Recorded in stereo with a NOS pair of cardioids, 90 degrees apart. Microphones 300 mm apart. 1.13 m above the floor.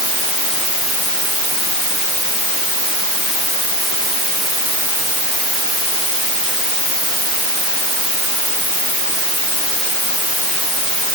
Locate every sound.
Only background noise.